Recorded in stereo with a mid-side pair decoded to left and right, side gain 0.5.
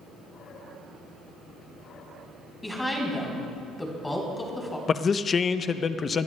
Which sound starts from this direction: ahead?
A woman speaking, at 2.6 s.